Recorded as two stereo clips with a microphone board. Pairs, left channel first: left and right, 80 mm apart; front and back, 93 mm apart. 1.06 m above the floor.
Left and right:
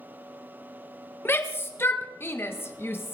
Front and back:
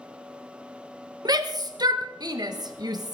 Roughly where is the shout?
Behind left.